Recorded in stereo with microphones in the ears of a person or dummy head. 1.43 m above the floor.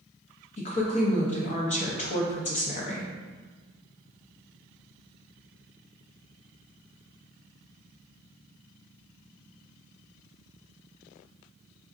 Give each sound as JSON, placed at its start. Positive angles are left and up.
{"t": 0.6, "sound": "a woman speaking", "side_deg": 40, "distance_m": 0.6}